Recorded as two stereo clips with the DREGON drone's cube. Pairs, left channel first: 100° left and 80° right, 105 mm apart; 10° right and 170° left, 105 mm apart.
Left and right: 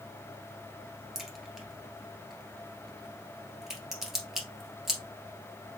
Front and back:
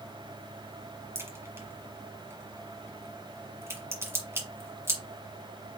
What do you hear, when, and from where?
1.1 s a crack: 160° right, 1.5 m